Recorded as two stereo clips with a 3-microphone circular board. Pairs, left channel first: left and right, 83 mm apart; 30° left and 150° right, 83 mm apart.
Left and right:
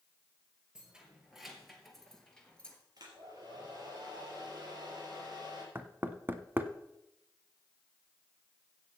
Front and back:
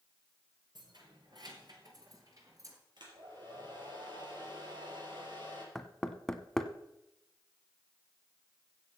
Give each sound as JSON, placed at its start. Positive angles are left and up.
{"t": 0.8, "sound": "keys jangling", "azimuth_deg": -170, "distance_m": 3.0}
{"t": 3.0, "sound": "a hair dryer", "azimuth_deg": -130, "distance_m": 4.0}
{"t": 5.8, "sound": "knocking", "azimuth_deg": -50, "distance_m": 0.9}